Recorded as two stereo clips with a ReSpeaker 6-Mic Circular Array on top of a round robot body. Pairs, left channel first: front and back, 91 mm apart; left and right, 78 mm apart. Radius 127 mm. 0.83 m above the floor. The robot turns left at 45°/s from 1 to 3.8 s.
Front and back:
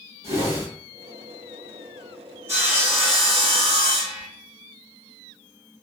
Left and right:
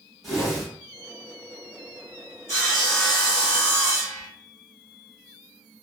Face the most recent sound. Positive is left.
turn(degrees=65)